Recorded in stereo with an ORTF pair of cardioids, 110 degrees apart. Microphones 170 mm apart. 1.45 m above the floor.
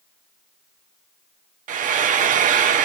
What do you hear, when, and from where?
1.7 s frying: 50° right, 0.6 m